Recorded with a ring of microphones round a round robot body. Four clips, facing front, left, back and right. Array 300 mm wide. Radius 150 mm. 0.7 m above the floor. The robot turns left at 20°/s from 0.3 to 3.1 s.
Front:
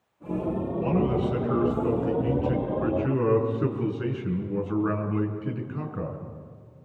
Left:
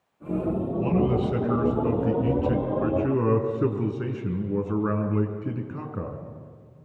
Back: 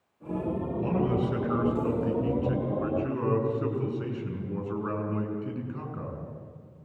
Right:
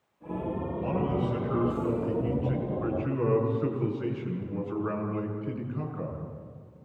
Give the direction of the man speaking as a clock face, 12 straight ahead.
8 o'clock.